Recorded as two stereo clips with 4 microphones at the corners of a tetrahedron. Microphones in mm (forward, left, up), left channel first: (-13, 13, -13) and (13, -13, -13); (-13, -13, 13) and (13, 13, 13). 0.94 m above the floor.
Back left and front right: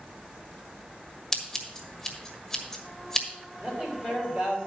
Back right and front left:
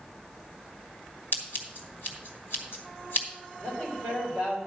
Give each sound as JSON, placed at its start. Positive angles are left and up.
{"t": 1.3, "sound": "scissors", "azimuth_deg": -150, "distance_m": 1.5}
{"t": 3.6, "sound": "a man speaking", "azimuth_deg": -115, "distance_m": 3.5}